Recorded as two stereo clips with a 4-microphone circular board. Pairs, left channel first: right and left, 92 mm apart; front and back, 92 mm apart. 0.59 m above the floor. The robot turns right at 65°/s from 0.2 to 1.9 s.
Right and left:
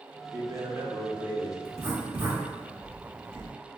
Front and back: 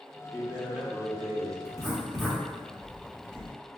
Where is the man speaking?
90° left, 0.7 m; by 1.6 s 170° left, 0.7 m.